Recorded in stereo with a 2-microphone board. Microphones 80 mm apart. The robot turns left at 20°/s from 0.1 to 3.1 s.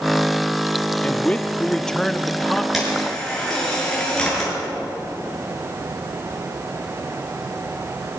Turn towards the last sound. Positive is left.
turn(degrees=10)  # may be behind; listen again after turning